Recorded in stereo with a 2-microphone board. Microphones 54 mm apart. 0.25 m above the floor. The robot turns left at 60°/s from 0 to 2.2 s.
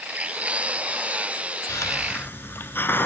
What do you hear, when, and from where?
1.7 s a hiss: 75° left, 0.8 m; by 3.1 s 45° left, 0.8 m